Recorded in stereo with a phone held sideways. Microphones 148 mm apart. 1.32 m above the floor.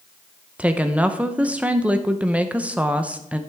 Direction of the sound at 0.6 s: 10° right (ahead or behind).